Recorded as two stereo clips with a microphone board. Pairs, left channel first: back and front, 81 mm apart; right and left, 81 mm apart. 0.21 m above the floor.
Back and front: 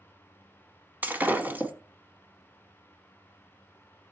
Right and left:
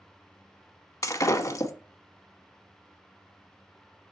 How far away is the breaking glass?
About 1.0 m.